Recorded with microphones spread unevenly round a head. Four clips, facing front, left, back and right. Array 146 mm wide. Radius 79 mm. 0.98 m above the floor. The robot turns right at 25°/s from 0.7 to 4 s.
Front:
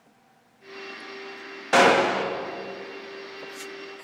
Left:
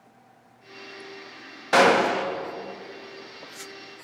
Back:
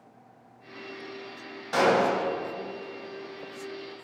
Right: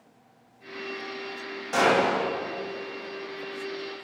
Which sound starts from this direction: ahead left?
A gunshot, at 1.7 s.